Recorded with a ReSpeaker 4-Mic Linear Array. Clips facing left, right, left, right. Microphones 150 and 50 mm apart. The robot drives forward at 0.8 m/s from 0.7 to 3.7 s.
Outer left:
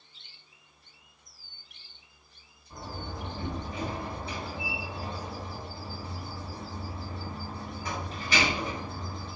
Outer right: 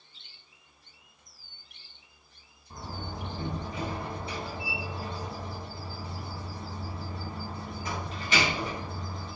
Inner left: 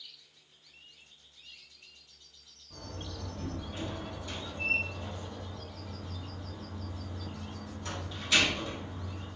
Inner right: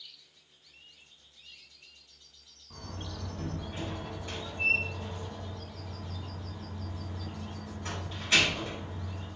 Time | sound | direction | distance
2.7 | a door slam | 30° right (ahead or behind) | 3.5 m